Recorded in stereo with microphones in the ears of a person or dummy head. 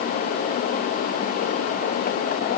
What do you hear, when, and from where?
Only background noise.